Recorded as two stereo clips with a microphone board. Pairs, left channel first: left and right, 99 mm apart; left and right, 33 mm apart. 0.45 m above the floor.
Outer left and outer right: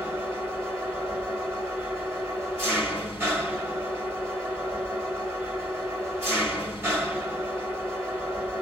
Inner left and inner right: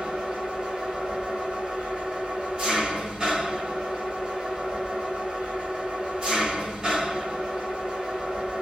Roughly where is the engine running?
Right.